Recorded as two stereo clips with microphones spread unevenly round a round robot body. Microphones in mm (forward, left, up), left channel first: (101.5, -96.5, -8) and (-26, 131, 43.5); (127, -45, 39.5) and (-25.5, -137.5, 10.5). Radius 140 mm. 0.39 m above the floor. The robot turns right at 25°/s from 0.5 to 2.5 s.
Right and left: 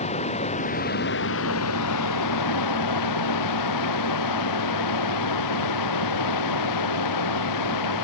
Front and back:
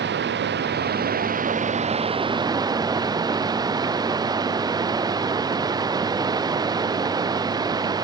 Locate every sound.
0.0 s running water: 130° right; by 8.1 s 80° right